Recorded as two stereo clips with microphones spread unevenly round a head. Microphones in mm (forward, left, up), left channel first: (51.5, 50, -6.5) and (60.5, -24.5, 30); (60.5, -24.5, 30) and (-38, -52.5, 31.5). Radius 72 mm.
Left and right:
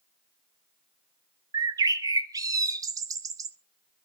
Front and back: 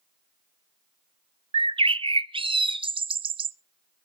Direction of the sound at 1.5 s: 155° right.